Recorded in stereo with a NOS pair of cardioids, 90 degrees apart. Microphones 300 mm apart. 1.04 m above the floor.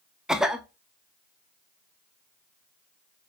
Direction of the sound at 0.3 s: Straight ahead.